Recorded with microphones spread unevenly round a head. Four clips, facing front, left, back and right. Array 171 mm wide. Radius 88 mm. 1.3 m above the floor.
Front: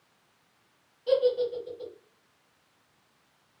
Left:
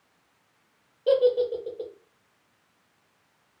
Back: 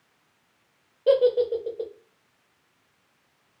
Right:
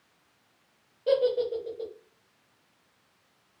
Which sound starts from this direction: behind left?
A giggle, at 1.1 s.